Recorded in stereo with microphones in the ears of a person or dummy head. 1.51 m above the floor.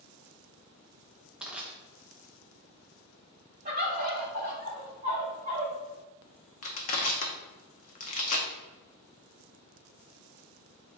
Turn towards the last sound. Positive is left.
turn(degrees=50)  # may be behind; listen again after turning